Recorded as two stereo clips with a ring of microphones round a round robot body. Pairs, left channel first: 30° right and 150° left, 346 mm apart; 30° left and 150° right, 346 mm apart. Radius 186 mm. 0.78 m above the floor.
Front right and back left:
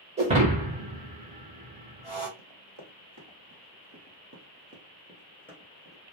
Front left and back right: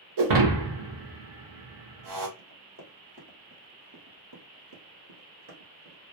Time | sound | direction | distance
0.2 | breaking glass | 145° right | 0.6 m
2.4 | running footsteps | 145° left | 1.4 m